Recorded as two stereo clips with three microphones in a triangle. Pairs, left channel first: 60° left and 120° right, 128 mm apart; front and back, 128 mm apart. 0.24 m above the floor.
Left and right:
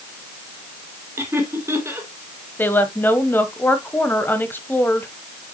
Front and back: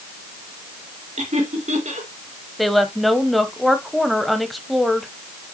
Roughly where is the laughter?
Behind.